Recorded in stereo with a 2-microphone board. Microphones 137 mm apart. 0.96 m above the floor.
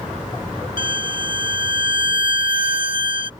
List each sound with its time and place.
0.8 s a violin: 75° left (ahead or behind)